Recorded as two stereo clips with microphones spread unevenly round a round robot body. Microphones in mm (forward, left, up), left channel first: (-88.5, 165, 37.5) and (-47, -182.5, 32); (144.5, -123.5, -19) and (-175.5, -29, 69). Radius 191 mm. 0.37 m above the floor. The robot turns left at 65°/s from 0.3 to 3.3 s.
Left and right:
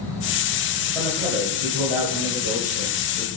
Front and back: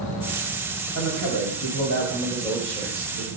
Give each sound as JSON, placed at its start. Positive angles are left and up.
{"t": 0.9, "sound": "a man speaking", "azimuth_deg": 0, "distance_m": 1.6}